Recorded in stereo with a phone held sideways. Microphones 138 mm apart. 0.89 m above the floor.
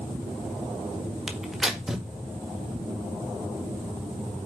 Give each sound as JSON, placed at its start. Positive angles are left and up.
{"t": 1.3, "sound": "tearing paper", "side_deg": -5, "distance_m": 1.6}